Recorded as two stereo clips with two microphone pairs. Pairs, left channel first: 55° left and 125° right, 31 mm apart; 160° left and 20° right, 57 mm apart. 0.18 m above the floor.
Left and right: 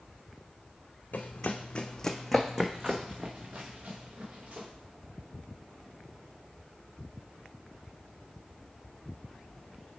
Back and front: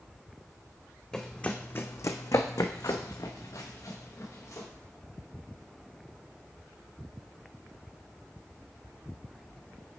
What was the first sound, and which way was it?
Running footsteps, 85° left.